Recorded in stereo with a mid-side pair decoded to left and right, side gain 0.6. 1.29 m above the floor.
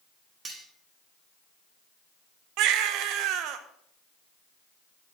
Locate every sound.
0.5 s cutlery clinking: 30° right, 1.9 m
2.6 s a baby crying: 70° right, 0.7 m